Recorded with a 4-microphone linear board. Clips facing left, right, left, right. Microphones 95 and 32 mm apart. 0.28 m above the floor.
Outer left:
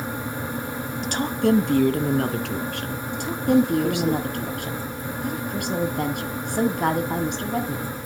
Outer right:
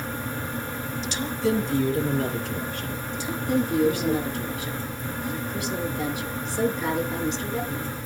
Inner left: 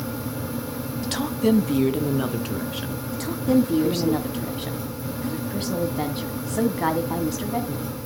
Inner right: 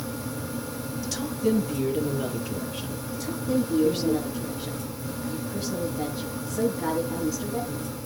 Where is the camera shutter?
No camera shutter in this recording.